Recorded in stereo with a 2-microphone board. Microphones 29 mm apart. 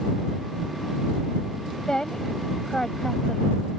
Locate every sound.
1.9 s a woman speaking: 25° left (ahead or behind)